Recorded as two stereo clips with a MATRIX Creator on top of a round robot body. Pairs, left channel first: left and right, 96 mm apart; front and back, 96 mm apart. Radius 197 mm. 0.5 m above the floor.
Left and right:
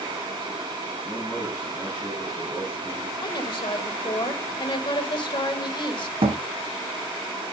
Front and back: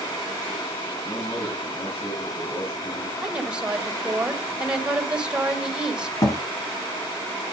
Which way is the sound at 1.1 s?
15° left.